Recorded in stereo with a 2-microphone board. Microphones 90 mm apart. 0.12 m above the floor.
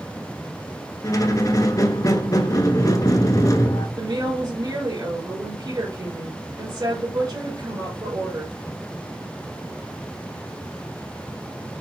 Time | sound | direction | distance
1.0 | a squeak | 40° left (ahead or behind) | 0.6 m
4.0 | a woman speaking | 45° right (ahead or behind) | 2.5 m